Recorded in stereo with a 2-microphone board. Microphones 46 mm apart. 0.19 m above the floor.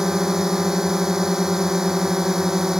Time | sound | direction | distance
0.0 | a drone | 10° right (ahead or behind) | ?